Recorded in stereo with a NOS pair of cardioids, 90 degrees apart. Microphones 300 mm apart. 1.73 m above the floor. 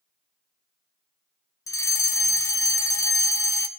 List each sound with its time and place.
1.7 s a fire alarm: 10° left, 1.1 m